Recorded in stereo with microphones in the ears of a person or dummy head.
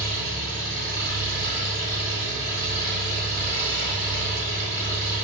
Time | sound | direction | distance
0.0 | an engine running | 25° left (ahead or behind) | 1.9 m